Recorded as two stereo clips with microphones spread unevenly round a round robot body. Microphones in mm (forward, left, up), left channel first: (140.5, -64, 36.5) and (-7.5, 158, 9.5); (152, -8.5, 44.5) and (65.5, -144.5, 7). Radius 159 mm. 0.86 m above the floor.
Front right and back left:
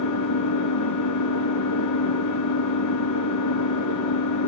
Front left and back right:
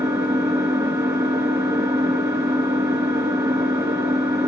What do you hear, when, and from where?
0.0 s an engine running: 50° right, 5.5 m